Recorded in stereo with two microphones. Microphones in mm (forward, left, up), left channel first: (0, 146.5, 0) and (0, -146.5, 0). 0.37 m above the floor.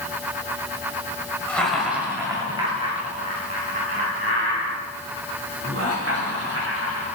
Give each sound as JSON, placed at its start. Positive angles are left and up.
{"t": 1.5, "sound": "laughter", "side_deg": 5, "distance_m": 1.5}